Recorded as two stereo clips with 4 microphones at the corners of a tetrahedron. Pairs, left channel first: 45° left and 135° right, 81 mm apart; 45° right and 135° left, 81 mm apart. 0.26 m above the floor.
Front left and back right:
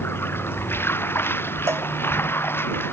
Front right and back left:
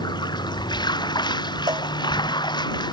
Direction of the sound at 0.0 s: 15° right.